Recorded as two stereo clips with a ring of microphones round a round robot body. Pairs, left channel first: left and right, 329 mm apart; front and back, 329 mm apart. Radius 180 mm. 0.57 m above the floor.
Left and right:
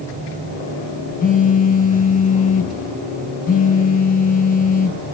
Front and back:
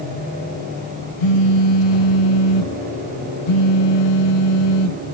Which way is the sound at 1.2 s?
20° left.